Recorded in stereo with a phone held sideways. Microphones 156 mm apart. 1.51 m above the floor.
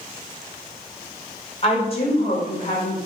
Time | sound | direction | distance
1.6 | a woman speaking | 40° left (ahead or behind) | 4.5 m